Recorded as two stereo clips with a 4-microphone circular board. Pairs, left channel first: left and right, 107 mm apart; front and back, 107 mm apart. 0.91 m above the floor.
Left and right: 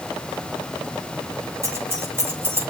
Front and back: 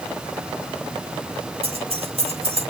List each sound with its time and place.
1.6 s keys jangling: 155° right, 3 m; by 2.7 s 160° right, 3.5 m